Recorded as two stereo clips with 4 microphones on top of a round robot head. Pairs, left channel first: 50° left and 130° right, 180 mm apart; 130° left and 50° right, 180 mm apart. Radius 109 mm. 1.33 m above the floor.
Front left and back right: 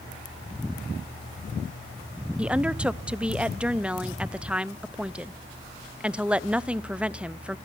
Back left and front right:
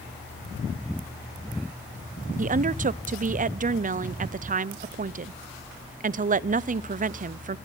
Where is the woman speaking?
50° right, 0.5 m.